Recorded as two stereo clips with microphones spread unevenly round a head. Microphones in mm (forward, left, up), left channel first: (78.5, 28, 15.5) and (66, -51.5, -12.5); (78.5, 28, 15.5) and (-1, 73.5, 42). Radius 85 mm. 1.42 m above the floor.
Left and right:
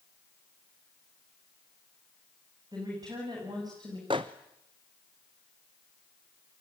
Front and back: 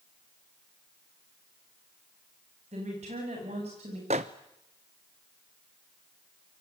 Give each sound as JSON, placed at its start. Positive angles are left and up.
{"t": 2.7, "sound": "a woman speaking", "azimuth_deg": -170, "distance_m": 8.5}
{"t": 4.1, "sound": "a microwave", "azimuth_deg": -165, "distance_m": 0.8}